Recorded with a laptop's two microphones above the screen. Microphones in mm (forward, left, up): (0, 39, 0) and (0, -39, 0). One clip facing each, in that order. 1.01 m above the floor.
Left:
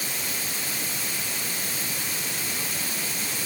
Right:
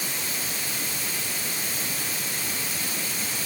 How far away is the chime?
No chime in this recording.